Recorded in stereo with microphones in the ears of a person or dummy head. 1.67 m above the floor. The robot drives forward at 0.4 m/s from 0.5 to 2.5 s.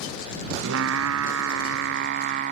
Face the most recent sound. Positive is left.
turn(degrees=-45)  # may be behind; listen again after turning